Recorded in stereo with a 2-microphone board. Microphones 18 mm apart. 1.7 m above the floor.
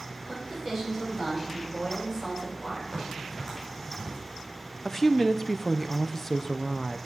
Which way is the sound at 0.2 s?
25° right (ahead or behind).